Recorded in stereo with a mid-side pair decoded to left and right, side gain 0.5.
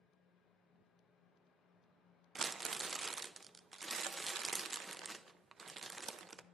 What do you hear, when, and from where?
0.0 s a fan: 70° left, 5.5 m
2.4 s crumpling: 35° right, 0.6 m